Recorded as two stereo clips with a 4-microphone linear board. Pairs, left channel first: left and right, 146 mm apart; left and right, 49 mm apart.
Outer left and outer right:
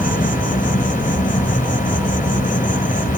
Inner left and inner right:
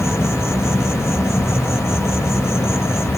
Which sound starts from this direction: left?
An insect, at 0.0 s.